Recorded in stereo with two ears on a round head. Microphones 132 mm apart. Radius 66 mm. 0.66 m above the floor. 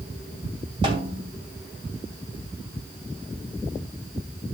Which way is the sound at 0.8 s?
30° right (ahead or behind).